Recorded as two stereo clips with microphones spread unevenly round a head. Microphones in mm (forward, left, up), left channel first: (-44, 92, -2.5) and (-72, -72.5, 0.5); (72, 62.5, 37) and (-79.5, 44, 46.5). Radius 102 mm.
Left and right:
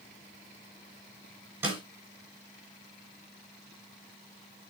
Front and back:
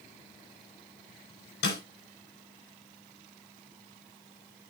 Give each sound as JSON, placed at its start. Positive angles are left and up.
{"t": 1.6, "sound": "a snare drum", "azimuth_deg": -20, "distance_m": 6.5}